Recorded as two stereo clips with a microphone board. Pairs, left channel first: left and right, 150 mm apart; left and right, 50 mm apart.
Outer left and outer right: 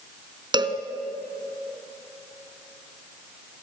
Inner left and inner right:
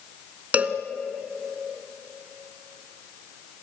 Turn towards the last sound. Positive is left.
turn(degrees=-35)  # may be behind; listen again after turning